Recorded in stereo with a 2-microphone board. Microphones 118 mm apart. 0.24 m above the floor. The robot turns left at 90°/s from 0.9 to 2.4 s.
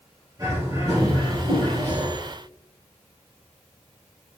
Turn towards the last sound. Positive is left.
turn(degrees=-165)